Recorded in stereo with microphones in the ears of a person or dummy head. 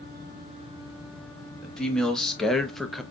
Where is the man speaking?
5° left (ahead or behind), 1.3 m; by 3.0 s centre (ahead or behind), 0.5 m.